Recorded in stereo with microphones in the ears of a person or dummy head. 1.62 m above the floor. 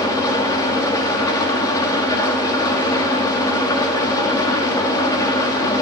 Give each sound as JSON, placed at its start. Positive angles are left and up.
{"t": 0.0, "sound": "an engine running", "side_deg": 15, "distance_m": 1.7}